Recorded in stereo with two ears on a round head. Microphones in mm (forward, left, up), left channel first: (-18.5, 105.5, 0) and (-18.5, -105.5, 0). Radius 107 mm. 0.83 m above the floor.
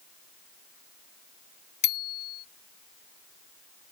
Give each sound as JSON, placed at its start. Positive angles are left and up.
{"t": 1.8, "sound": "a bicycle bell", "side_deg": 30}